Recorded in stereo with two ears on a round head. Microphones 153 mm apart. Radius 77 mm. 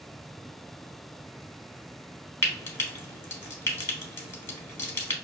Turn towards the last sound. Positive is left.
turn(degrees=15)  # may be behind; listen again after turning